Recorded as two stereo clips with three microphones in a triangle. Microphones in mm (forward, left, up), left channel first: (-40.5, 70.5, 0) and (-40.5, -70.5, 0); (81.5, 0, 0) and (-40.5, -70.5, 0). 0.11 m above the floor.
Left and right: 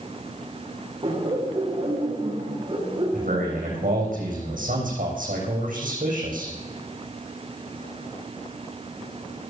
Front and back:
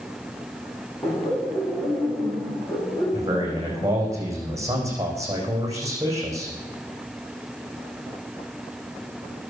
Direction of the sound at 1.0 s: 40° right.